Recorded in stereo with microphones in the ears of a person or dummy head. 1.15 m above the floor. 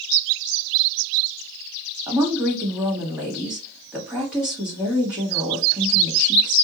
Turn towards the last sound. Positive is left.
turn(degrees=-5)  # may be behind; listen again after turning